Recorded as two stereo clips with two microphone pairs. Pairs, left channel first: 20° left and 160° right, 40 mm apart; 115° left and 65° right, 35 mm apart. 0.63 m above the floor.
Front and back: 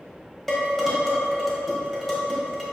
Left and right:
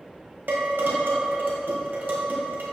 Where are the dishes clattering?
60° right, 1.2 m.